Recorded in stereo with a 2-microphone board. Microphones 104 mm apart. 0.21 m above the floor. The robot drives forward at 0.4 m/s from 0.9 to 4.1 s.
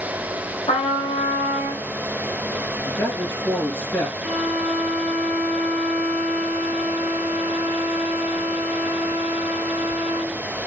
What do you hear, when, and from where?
0.7 s a trumpet: 65° left (ahead or behind), 5 m; by 1.8 s 70° left (ahead or behind), 5 m
2.9 s a man speaking: 15° left (ahead or behind), 3.5 m
4.2 s a violin: centre (ahead or behind), 4.5 m